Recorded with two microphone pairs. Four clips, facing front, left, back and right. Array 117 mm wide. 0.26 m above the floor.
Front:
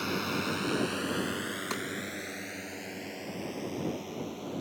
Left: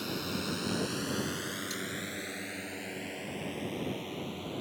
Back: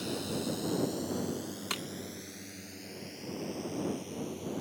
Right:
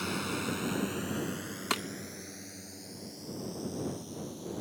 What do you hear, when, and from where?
0.0 s a drone: 25° right; by 4.6 s 50° left
1.7 s breaking glass: 80° right